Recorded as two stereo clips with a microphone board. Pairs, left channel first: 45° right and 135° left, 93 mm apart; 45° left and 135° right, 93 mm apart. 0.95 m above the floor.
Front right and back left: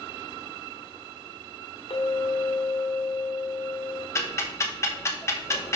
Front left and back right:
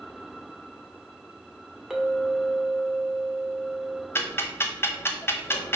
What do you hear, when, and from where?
1.9 s a clink: 50° right, 1.4 m
4.2 s ticking: 5° right, 0.8 m